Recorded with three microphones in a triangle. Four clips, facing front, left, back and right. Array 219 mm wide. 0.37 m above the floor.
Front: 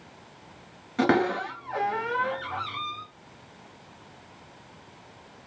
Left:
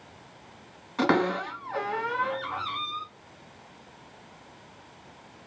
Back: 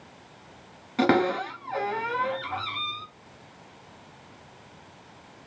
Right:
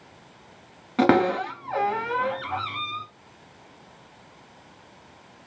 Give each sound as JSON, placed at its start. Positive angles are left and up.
{"t": 1.0, "sound": "a cupboard door", "azimuth_deg": -95, "distance_m": 1.1}